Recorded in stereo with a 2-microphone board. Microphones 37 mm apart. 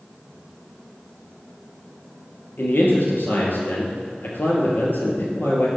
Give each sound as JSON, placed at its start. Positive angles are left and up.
{"t": 2.6, "sound": "a man speaking", "side_deg": 55, "distance_m": 2.0}